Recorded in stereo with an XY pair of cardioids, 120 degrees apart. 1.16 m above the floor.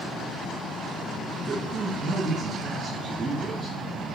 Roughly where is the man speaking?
Ahead right.